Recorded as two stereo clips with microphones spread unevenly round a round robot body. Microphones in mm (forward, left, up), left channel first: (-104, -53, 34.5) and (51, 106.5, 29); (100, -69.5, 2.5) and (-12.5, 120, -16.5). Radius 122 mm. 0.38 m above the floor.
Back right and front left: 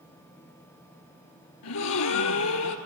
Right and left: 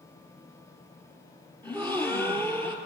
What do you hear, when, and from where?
1.6 s a gasp: 140° right, 1.3 m